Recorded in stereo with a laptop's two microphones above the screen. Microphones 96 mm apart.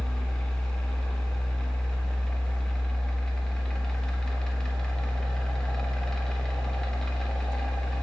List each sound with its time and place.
0.0 s a fan: 10° left (ahead or behind), 0.7 m